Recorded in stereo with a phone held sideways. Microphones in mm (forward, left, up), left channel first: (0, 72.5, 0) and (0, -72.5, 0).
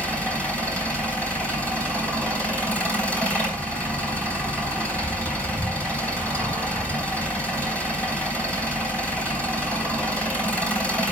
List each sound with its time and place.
0.0 s an engine running: 10° left (ahead or behind), 3.5 m